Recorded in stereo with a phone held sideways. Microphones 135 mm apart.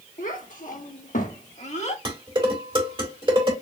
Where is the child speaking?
80° left, 1.6 m; by 1.9 s 55° left (ahead or behind), 1.4 m.